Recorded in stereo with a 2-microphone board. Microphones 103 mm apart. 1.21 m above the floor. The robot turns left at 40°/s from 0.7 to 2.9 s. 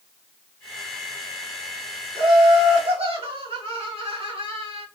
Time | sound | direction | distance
2.1 | laughter | 55° right | 2 m